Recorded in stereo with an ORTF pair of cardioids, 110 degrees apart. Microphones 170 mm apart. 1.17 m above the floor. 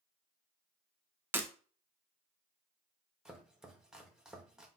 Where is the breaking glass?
15° right, 0.8 m.